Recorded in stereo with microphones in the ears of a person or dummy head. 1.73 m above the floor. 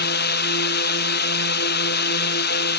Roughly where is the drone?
Left.